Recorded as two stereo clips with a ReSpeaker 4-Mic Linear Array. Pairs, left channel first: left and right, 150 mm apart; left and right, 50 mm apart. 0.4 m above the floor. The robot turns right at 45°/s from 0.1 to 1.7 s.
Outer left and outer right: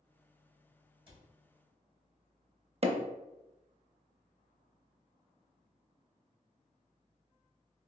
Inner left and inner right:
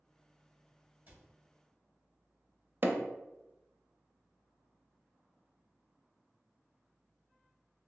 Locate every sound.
1.1 s a cupboard door: 40° right (ahead or behind), 1.4 m; by 1.3 s 30° right (ahead or behind), 1.4 m
2.8 s hammering: 45° right (ahead or behind), 0.6 m